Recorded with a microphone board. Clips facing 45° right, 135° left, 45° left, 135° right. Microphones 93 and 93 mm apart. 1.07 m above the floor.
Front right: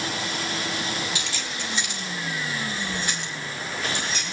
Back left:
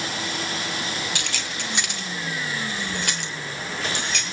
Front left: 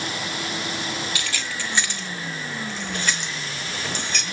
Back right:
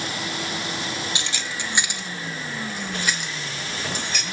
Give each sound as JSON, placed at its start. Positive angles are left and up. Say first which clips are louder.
{"t": 1.1, "sound": "keys jangling", "louder": "back left 1 dB, even", "azimuth_deg": 160, "distance_m": 1.6}